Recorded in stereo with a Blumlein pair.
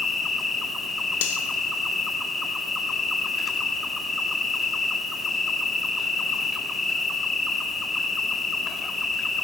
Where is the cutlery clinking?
50° left, 1.3 m.